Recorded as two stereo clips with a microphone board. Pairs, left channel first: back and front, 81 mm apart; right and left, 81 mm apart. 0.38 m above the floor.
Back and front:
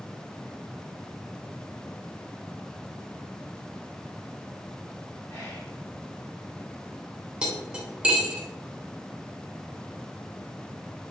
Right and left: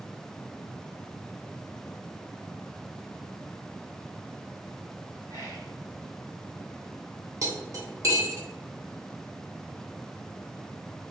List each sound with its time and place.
5.3 s whispering: 135° left, 1.5 m
7.4 s cutlery clinking: 75° left, 0.5 m